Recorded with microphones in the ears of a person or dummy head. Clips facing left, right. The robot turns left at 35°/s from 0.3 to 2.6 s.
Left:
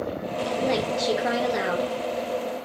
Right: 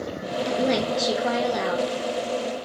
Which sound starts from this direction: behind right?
A woman speaking, at 0.5 s.